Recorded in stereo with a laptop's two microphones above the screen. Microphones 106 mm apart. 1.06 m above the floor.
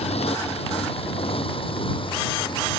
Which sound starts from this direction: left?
A motorcycle, at 0.0 s.